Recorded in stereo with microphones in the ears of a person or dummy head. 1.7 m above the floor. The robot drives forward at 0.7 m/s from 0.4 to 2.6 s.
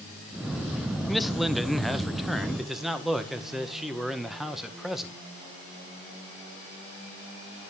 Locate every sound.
1.1 s a man speaking: centre (ahead or behind), 0.6 m